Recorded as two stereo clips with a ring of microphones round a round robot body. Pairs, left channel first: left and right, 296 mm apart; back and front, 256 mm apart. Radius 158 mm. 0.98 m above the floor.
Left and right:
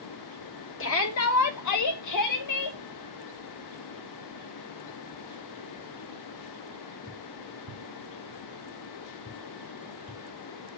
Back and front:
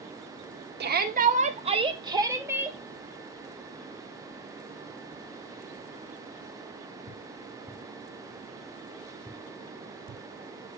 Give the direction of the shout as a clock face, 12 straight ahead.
10 o'clock.